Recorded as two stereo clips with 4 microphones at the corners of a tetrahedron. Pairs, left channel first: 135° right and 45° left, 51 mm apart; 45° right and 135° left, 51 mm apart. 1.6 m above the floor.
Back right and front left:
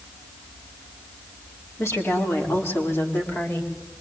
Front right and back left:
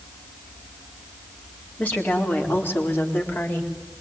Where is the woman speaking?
105° right, 4.5 m; by 3.7 s 85° right, 4 m.